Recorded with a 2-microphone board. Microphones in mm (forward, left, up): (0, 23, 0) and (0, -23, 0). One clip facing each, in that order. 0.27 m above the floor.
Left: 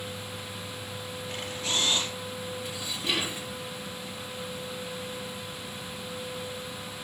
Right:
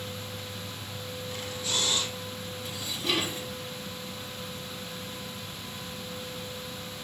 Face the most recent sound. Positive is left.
turn(degrees=15)  # may be behind; listen again after turning